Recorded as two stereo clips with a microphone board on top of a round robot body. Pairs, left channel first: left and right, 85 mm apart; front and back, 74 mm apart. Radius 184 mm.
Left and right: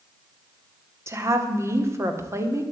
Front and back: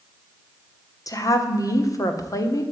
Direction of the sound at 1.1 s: 35° right.